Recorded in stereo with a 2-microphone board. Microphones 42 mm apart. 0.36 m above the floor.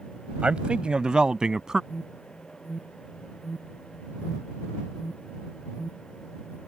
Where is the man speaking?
30° right (ahead or behind); by 1.8 s 15° right (ahead or behind).